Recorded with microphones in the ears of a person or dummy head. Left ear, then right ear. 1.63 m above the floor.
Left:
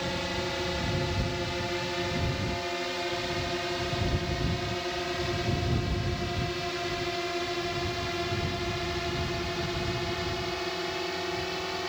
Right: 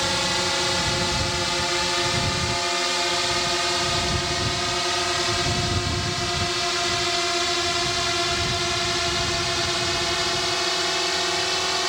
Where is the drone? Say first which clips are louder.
Right 9 dB; 50° right (ahead or behind).